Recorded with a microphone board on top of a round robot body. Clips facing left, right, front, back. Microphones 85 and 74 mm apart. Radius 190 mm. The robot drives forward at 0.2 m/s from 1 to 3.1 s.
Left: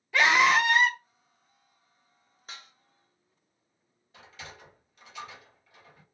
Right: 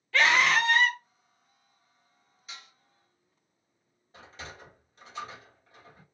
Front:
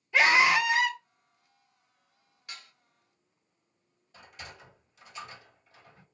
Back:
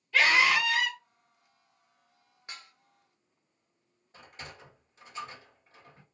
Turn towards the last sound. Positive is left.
turn(degrees=-135)